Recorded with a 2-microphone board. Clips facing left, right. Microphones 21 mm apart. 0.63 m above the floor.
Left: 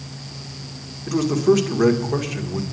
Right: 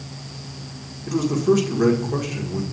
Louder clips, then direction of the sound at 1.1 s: Left 2 dB; 15° left (ahead or behind).